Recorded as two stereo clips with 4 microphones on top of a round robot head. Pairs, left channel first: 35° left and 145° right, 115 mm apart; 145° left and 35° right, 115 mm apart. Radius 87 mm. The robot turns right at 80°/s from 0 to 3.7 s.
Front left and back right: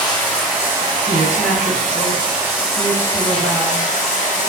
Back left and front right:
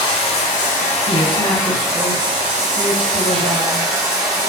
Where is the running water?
90° left, 0.8 m; by 4.5 s 25° left, 0.8 m.